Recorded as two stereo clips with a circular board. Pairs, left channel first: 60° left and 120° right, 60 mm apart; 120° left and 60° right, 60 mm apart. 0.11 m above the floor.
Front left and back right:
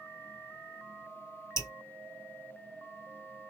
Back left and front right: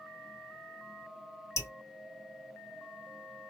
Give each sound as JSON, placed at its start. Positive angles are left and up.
{"t": 1.6, "sound": "dripping", "azimuth_deg": 90, "distance_m": 2.0}